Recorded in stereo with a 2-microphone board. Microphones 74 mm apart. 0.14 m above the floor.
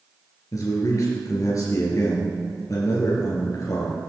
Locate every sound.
0.5 s a man speaking: 50° left (ahead or behind), 2.5 m